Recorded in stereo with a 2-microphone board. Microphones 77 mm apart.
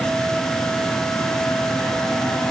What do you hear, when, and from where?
Only background noise.